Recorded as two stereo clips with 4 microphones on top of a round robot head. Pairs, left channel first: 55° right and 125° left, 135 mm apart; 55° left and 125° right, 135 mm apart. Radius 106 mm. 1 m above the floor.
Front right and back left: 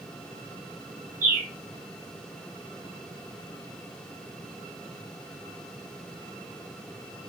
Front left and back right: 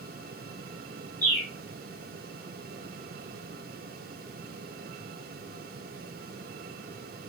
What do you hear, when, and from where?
1.2 s a bird: 135° left, 1.4 m